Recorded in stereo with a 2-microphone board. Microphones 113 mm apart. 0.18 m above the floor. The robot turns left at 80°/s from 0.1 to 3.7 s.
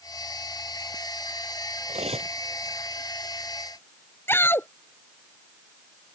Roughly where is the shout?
Centre.